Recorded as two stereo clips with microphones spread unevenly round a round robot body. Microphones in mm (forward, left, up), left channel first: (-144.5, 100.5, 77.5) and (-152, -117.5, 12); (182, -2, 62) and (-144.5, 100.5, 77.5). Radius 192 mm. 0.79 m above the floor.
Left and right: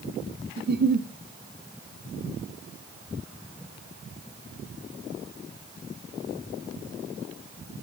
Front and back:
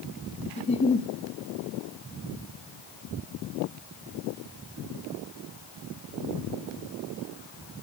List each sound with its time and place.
0.6 s a giggle: 85° right, 1.2 m